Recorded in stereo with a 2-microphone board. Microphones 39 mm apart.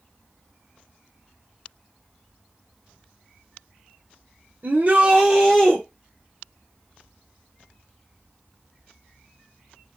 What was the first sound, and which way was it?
A shout, 45° right (ahead or behind).